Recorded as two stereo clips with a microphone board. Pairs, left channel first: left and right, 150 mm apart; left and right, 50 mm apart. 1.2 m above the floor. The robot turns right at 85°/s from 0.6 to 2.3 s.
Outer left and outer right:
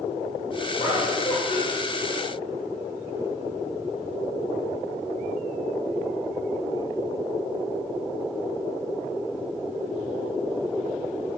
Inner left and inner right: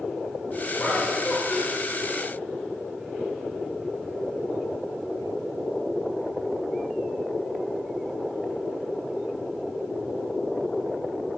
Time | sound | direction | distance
0.8 | laughter | 60° left | 1.9 m